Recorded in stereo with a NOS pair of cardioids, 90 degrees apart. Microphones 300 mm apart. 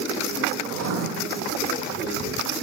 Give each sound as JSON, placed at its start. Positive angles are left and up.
{"t": 0.7, "sound": "writing", "azimuth_deg": -50, "distance_m": 0.5}